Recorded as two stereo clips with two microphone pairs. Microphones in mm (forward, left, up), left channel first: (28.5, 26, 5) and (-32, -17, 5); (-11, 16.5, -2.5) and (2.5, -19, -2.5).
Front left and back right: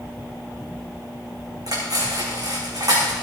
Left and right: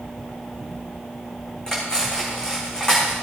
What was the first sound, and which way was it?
Cutlery clinking, straight behind.